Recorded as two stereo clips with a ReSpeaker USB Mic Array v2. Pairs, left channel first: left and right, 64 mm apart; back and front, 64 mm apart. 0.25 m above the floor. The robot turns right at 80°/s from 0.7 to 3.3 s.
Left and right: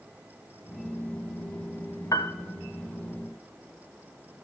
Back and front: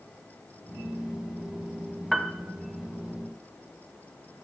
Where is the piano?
90° left, 0.5 m; by 2.3 s 105° left, 0.5 m.